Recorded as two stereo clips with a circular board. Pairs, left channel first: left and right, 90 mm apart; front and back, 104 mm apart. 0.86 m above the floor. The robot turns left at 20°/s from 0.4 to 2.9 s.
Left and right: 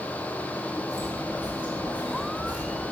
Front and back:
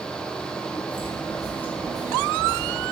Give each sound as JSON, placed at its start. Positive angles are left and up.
{"t": 0.9, "sound": "footsteps", "azimuth_deg": -40, "distance_m": 3.0}